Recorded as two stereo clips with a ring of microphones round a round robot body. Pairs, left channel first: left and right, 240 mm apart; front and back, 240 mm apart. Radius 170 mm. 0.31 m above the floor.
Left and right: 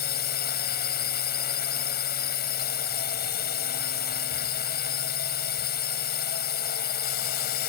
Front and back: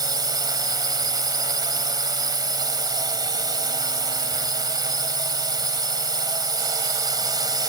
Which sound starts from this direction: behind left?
A drone, at 0.0 s.